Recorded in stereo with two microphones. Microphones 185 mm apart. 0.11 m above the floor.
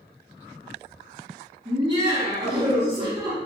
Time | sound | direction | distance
1.6 | laughter | 25° right (ahead or behind) | 1.6 m